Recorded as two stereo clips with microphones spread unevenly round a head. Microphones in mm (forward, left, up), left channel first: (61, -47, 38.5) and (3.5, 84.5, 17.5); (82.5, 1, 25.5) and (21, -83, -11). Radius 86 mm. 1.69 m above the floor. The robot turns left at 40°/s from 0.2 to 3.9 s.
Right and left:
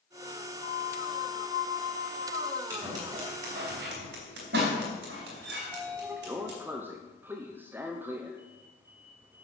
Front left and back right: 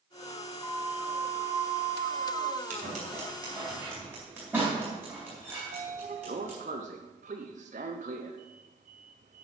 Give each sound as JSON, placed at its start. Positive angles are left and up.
{"t": 0.6, "sound": "a flute", "azimuth_deg": -20, "distance_m": 0.7}
{"t": 2.7, "sound": "scissors", "azimuth_deg": -165, "distance_m": 3.0}
{"t": 5.6, "sound": "a sliding door", "azimuth_deg": -165, "distance_m": 0.8}